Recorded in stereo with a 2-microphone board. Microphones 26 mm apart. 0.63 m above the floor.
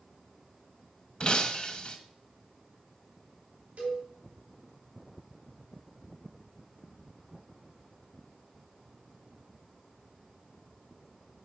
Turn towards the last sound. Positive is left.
turn(degrees=-60)  # may be behind; listen again after turning